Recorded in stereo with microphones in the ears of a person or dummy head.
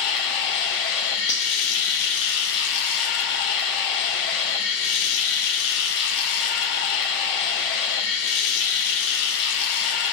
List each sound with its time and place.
0.0 s running water: 65° left (ahead or behind), 0.7 m
1.3 s cutlery clinking: 15° left (ahead or behind), 0.6 m